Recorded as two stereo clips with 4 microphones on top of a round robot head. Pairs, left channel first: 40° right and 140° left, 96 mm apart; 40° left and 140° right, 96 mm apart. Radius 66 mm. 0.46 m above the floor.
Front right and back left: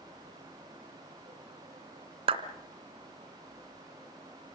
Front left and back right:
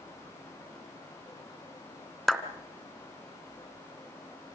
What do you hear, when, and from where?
2.3 s a clap: 125° left, 2.5 m